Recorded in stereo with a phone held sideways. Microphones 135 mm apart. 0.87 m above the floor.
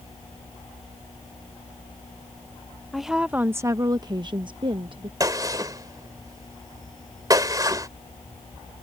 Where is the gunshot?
25° right (ahead or behind).